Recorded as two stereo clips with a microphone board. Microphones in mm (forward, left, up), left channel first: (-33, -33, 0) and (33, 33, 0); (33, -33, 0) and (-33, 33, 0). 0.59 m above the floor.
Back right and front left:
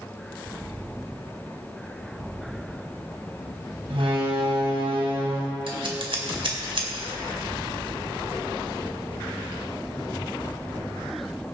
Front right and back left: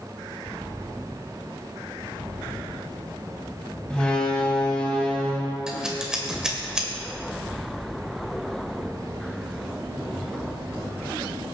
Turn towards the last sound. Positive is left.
turn(degrees=55)